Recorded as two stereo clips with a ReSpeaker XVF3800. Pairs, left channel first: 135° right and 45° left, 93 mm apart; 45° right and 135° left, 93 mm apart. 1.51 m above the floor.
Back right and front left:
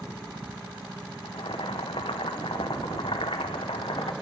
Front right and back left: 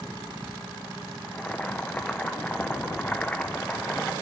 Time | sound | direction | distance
1.2 | boiling | 120° right | 0.9 m